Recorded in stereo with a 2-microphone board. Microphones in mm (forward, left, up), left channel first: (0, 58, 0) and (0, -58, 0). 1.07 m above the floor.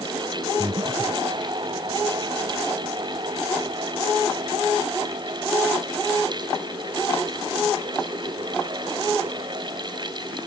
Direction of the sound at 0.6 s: 45° right (ahead or behind).